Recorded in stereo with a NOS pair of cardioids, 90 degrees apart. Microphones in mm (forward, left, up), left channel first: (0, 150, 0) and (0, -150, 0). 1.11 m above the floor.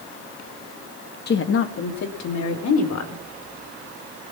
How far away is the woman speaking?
About 1.1 m.